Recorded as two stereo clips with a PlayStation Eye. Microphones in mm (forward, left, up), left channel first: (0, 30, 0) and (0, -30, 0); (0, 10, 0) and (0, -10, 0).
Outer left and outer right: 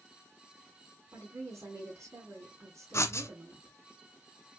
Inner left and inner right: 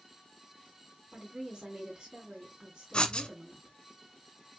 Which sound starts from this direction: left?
Writing, at 2.9 s.